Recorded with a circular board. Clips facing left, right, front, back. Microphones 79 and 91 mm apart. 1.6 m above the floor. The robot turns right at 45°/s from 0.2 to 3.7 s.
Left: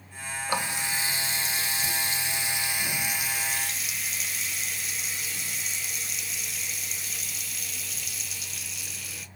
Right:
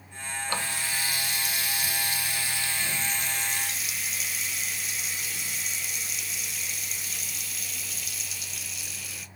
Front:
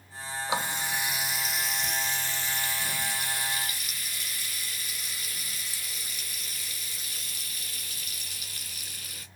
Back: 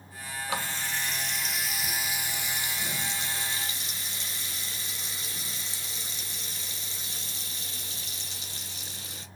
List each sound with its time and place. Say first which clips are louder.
0.5 s a running tap: left 3 dB, front 3 dB; 40° left, 0.6 m; by 9.3 s 175° right, 0.6 m